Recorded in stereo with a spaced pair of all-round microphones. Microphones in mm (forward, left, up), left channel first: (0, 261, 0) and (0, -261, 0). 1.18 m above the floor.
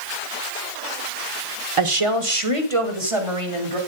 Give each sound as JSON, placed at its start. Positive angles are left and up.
{"t": 1.8, "sound": "a woman speaking", "side_deg": -70, "distance_m": 1.3}